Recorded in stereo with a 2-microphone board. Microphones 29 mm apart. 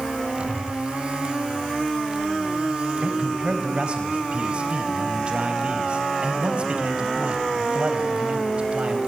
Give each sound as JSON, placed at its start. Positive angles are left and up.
{"t": 0.3, "sound": "a whoosh", "side_deg": 20, "distance_m": 7.5}
{"t": 3.0, "sound": "a man speaking", "side_deg": -40, "distance_m": 4.0}